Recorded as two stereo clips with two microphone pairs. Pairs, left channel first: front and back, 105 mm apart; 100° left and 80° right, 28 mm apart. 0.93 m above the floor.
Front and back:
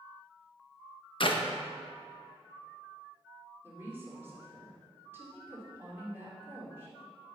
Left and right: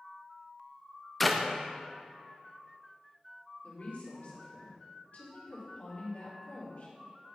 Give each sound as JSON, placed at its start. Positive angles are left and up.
{"t": 1.2, "sound": "a clap", "azimuth_deg": 10, "distance_m": 0.8}
{"t": 3.6, "sound": "a woman speaking", "azimuth_deg": 115, "distance_m": 3.0}